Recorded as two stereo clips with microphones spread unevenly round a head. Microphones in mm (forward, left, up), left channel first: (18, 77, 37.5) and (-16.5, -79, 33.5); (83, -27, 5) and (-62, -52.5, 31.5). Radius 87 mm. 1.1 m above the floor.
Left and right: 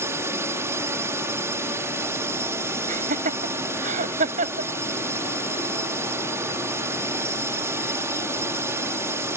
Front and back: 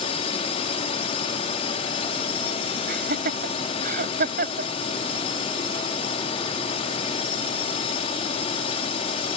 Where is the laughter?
150° right.